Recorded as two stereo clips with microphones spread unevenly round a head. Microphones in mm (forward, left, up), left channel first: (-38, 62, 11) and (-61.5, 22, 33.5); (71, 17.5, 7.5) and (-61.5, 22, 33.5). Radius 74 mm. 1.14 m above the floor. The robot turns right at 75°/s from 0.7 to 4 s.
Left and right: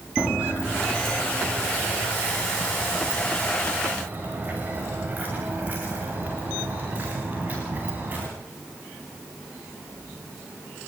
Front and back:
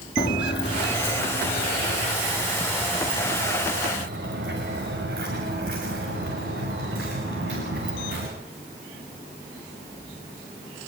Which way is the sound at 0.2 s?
70° right.